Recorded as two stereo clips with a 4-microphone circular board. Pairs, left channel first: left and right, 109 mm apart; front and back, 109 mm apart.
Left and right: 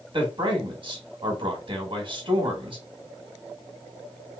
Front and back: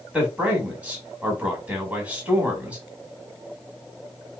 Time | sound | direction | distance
0.1 | a man speaking | 105° right | 1.6 m